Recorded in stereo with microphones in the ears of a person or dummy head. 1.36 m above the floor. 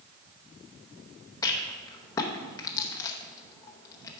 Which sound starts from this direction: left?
A rattle, at 1.4 s.